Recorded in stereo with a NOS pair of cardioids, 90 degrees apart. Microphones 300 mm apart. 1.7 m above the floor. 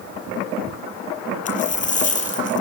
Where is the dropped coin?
25° left, 6.5 m.